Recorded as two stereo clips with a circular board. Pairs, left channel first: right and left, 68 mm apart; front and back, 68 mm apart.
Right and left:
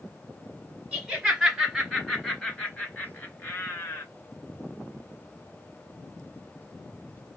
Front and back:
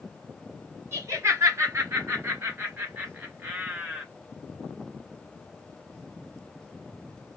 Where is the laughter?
160° left, 1.8 m; by 4.0 s 105° right, 1.8 m.